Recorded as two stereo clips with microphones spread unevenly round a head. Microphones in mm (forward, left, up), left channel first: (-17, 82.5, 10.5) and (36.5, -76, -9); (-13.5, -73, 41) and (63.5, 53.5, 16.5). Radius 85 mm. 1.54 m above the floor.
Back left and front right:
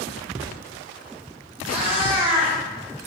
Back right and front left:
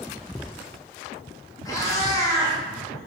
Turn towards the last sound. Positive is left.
turn(degrees=-105)